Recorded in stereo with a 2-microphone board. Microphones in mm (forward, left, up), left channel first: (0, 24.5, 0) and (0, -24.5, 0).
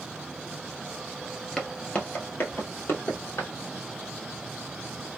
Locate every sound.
1.6 s footsteps: 10° left (ahead or behind), 0.8 m; by 3.5 s 65° left (ahead or behind), 1.5 m